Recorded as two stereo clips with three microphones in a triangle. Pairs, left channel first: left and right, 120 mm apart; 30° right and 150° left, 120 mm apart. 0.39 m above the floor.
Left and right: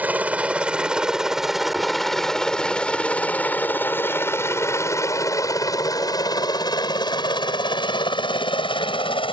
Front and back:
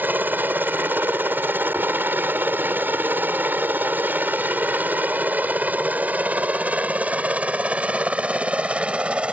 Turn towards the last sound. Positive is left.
turn(degrees=70)